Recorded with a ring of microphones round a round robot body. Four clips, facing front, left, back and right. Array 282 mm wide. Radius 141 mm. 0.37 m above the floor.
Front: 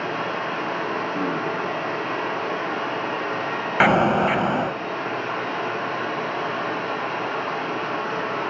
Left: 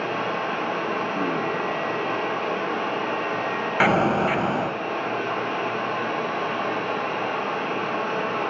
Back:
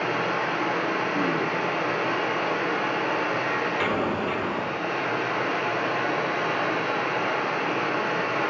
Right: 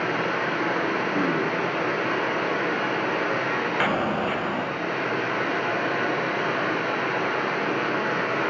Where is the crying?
No crying in this recording.